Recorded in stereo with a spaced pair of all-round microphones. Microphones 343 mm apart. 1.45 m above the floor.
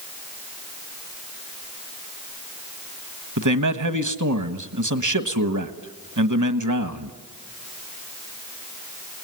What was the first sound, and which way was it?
A man speaking, 60° right (ahead or behind).